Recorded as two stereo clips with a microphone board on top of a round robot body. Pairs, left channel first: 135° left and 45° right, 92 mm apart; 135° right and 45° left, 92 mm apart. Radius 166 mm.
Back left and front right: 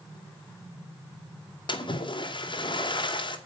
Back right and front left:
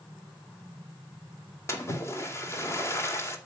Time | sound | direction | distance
1.7 | a splash | 165° left | 2.5 m